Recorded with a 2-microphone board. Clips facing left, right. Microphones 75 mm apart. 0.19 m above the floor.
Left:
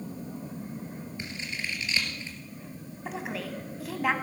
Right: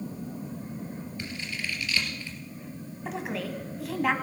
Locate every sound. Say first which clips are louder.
1.2 s scissors: even; 20° left (ahead or behind), 2.5 m
3.0 s a woman speaking: right 2 dB; centre (ahead or behind), 1.2 m